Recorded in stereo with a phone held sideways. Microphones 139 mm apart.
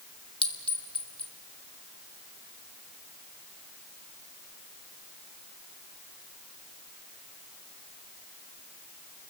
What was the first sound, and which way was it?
A clink, 40° left (ahead or behind).